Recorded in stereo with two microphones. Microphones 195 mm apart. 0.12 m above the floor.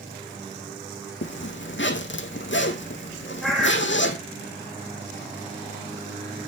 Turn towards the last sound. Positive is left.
turn(degrees=0)  # may be behind; listen again after turning